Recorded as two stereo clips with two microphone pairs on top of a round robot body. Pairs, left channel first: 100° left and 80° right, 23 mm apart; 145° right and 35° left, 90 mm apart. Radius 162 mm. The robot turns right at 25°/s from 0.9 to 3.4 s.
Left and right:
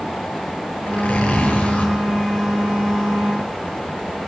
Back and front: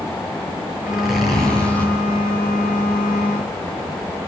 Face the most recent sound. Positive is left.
turn(degrees=175)